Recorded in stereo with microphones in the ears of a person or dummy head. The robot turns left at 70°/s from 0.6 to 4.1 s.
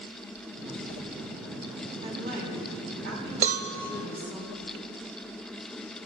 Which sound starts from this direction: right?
A cowbell, at 3.4 s.